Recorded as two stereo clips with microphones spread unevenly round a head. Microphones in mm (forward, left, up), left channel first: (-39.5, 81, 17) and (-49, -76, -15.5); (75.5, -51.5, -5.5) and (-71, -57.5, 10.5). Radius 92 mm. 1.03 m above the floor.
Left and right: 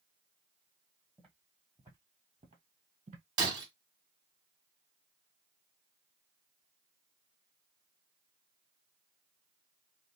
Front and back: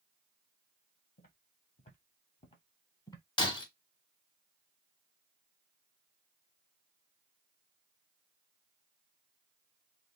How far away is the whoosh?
I don't hear a whoosh.